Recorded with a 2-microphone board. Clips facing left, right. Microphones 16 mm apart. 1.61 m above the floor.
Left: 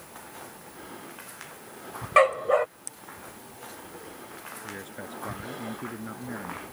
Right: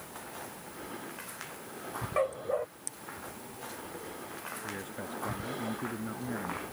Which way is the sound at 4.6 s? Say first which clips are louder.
Left 2 dB; 15° left (ahead or behind).